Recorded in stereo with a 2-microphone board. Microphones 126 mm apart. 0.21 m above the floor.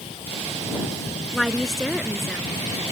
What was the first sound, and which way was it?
A woman speaking, centre (ahead or behind).